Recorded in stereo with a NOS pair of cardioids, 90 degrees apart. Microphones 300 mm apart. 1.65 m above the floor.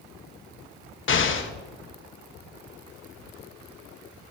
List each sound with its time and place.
1.1 s an explosion: 40° left, 1.2 m